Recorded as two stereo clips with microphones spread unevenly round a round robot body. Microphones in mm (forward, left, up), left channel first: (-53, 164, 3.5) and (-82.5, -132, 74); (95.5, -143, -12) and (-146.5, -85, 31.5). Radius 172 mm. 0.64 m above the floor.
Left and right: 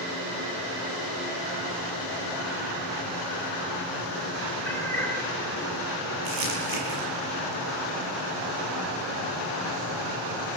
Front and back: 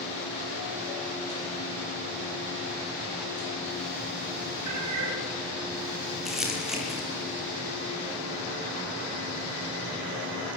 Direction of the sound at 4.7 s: 170° left.